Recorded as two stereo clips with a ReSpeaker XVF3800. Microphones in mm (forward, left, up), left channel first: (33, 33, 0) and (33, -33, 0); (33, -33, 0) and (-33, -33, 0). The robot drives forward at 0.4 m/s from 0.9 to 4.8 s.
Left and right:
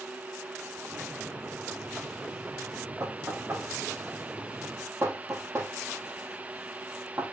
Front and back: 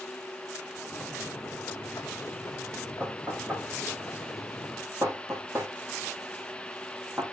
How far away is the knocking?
About 6 m.